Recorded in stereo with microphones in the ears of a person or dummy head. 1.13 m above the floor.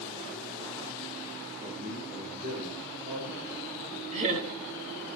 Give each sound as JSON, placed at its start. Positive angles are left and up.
{"t": 1.6, "sound": "a man speaking", "side_deg": -50, "distance_m": 5.0}
{"t": 4.1, "sound": "laughter", "side_deg": -40, "distance_m": 2.0}